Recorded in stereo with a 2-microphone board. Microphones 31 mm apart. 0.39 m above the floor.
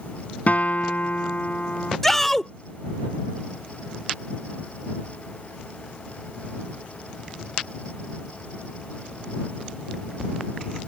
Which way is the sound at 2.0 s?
10° left (ahead or behind).